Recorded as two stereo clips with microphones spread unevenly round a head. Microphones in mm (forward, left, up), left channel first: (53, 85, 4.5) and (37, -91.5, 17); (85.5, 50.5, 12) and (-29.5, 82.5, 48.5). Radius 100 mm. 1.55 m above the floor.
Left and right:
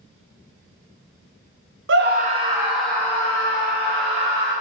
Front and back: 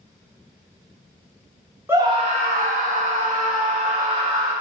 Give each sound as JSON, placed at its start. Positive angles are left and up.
{"t": 1.9, "sound": "a scream", "azimuth_deg": -120, "distance_m": 0.8}